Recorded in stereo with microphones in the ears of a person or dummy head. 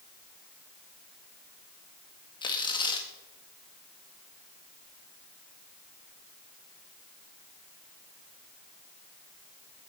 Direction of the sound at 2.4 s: 25° left (ahead or behind).